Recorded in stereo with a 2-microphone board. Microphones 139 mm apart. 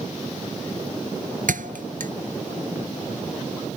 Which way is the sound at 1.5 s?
75° right (ahead or behind).